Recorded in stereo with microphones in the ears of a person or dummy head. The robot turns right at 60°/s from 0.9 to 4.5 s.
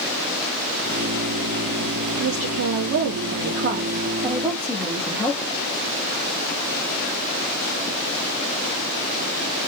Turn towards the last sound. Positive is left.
turn(degrees=0)